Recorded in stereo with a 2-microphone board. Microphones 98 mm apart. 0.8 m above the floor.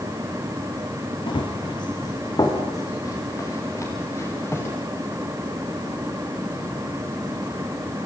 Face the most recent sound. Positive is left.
turn(degrees=25)  # may be behind; listen again after turning